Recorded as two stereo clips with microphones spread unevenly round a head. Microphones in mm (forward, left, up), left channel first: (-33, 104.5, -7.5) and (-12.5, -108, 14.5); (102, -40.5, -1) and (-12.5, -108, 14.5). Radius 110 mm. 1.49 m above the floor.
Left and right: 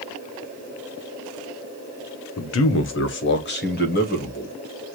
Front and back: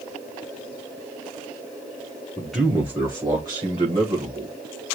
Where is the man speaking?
115° left, 0.8 m; by 4.5 s 145° left, 2 m.